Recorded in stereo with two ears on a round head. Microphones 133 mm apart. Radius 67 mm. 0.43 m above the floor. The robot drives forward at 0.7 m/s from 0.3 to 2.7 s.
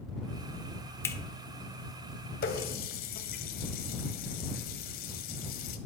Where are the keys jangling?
I don't hear keys jangling.